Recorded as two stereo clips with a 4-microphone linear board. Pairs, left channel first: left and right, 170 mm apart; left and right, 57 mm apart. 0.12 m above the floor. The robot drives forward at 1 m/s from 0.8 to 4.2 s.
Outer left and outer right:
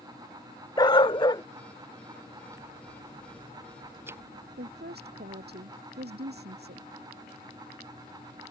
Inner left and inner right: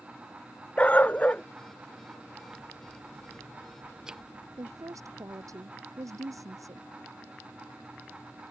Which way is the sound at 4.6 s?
75° right (ahead or behind).